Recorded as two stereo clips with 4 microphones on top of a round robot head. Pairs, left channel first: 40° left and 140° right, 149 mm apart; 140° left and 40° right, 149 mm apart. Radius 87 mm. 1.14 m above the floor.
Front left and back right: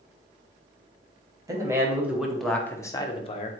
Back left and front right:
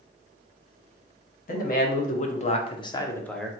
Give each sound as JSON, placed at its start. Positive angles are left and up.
{"t": 1.5, "sound": "a man speaking", "azimuth_deg": 150, "distance_m": 1.3}